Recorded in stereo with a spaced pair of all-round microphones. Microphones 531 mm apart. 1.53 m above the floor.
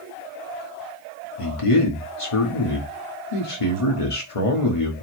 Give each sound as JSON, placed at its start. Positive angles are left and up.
{"t": 1.4, "sound": "a man speaking", "side_deg": 75, "distance_m": 1.3}